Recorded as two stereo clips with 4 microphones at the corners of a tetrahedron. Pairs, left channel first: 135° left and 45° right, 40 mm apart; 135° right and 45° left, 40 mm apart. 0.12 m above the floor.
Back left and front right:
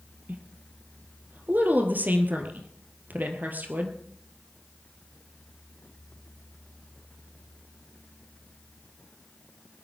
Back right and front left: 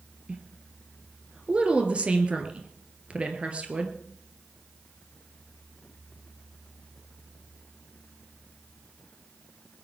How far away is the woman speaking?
About 2.5 m.